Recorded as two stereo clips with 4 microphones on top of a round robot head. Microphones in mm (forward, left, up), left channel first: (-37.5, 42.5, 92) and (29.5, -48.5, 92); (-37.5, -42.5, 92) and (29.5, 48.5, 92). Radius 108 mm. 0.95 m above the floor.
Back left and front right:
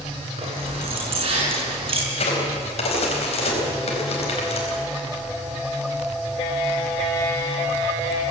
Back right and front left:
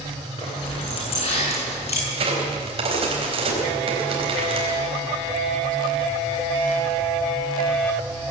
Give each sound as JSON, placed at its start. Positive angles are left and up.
{"t": 0.4, "sound": "keys jangling", "azimuth_deg": -90, "distance_m": 7.5}
{"t": 2.1, "sound": "a crack", "azimuth_deg": 90, "distance_m": 4.5}